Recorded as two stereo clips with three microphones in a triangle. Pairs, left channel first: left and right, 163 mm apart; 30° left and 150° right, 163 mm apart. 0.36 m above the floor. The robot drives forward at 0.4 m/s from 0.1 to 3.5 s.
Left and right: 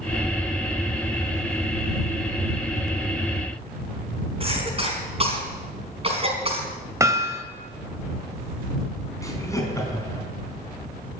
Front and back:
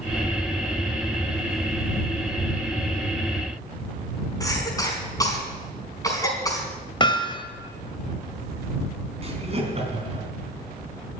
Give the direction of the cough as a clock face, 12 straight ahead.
1 o'clock.